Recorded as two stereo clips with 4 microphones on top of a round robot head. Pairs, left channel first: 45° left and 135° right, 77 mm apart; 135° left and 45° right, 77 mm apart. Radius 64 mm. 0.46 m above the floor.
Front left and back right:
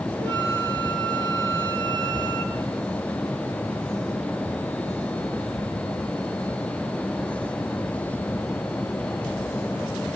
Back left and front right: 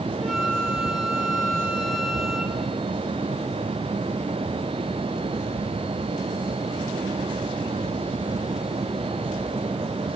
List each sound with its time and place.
0.2 s a flute: 135° right, 2.5 m